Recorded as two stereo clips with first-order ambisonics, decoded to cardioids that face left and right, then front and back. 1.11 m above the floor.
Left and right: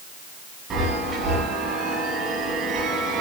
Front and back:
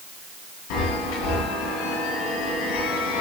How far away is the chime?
About 10 m.